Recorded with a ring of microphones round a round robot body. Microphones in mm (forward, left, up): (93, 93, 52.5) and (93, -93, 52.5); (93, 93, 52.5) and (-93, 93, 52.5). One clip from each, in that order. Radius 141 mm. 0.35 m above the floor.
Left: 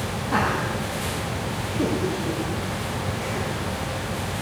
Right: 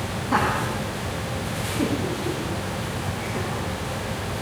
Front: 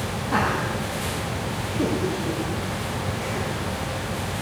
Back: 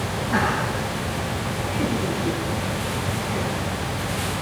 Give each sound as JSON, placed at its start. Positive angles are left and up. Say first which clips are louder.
{"t": 0.3, "sound": "laughter", "louder": "right 1 dB, back 1 dB", "azimuth_deg": -40, "distance_m": 3.0}